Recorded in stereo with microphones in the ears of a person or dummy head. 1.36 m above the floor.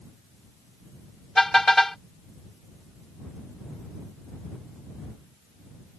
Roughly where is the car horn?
Centre.